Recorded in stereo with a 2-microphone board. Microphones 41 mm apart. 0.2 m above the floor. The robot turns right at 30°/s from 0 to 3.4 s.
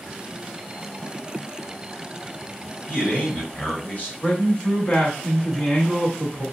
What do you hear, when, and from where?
2.9 s a man speaking: 35° left (ahead or behind), 2.0 m
4.2 s a man speaking: 25° left (ahead or behind), 1.4 m